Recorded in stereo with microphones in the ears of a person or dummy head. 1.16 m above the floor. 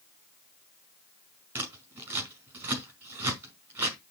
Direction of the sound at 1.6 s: 5° right (ahead or behind).